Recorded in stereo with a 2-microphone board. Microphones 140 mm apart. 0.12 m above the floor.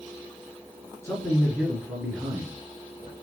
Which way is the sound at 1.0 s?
25° left (ahead or behind).